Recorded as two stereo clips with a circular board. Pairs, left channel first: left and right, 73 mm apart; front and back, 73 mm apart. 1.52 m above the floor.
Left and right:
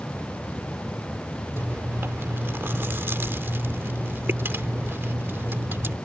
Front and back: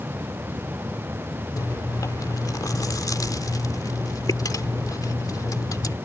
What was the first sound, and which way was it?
Chewing, 35° right.